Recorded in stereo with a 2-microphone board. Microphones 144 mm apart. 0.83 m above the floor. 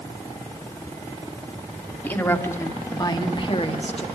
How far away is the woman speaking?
About 2.5 m.